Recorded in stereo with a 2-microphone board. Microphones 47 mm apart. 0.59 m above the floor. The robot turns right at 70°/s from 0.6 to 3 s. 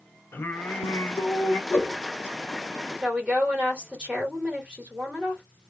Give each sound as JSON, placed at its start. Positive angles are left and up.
{"t": 0.3, "sound": "singing", "azimuth_deg": 55, "distance_m": 0.7}
{"t": 1.7, "sound": "a whoosh", "side_deg": 65, "distance_m": 1.3}
{"t": 3.0, "sound": "a woman speaking", "side_deg": -25, "distance_m": 1.7}